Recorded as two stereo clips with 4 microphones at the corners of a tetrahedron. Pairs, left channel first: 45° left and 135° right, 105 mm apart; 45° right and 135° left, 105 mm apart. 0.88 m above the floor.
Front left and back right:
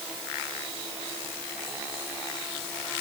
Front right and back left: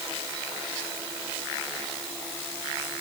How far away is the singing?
No singing in this recording.